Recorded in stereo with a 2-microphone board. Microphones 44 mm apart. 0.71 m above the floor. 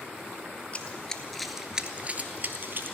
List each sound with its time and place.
0.7 s running footsteps: 30° left (ahead or behind), 0.9 m; by 3.0 s 55° right (ahead or behind), 1.2 m